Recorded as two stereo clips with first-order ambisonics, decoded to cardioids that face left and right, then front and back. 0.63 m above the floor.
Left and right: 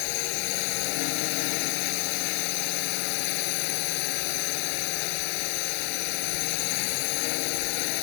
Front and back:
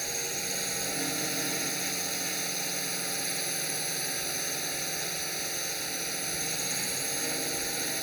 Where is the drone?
95° left.